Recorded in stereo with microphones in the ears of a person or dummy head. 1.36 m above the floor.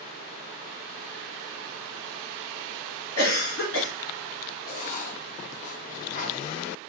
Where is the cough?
85° left, 1.6 m.